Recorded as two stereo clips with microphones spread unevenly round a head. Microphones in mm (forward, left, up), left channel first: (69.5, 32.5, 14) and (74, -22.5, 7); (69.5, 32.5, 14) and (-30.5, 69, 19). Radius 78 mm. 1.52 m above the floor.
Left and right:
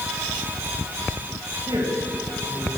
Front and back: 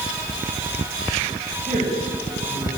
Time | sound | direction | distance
1.7 | a woman speaking | 155° right | 8 m